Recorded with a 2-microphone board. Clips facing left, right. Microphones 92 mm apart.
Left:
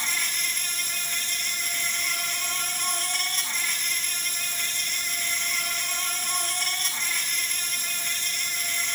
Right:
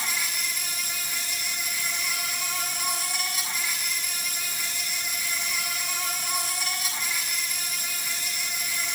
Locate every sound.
0.0 s an insect: 5° right (ahead or behind), 7 m